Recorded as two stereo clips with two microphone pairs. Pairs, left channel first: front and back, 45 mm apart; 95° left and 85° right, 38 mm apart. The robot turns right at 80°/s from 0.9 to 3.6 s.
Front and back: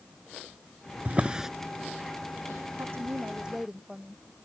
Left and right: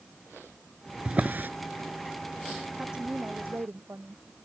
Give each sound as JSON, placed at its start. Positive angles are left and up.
{"t": 1.1, "sound": "a drawer", "azimuth_deg": -130}
{"t": 2.8, "sound": "a woman speaking", "azimuth_deg": -165}